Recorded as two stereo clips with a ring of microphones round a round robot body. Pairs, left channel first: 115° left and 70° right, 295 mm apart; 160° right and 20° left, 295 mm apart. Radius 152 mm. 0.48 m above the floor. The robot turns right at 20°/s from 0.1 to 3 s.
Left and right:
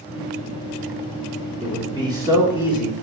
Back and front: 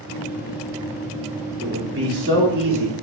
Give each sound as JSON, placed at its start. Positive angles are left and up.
{"t": 1.6, "sound": "a man speaking", "azimuth_deg": -5, "distance_m": 1.4}